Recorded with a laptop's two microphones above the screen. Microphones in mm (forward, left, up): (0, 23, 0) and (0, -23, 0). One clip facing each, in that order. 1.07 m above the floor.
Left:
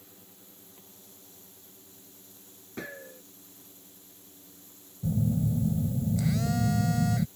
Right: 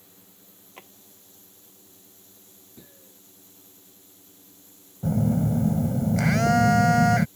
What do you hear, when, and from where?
0.8 s a drawer: 70° right (ahead or behind)
2.8 s a gunshot: 80° left
5.0 s a phone buzzing: 75° right (ahead or behind)